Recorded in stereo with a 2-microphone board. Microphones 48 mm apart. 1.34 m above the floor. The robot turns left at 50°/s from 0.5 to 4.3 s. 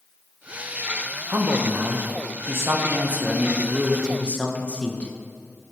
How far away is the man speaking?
About 1.3 m.